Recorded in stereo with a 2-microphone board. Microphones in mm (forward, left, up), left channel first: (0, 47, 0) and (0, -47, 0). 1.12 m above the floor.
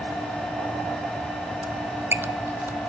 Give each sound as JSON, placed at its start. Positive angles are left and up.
{"t": 1.6, "sound": "a squeak", "side_deg": -25, "distance_m": 0.5}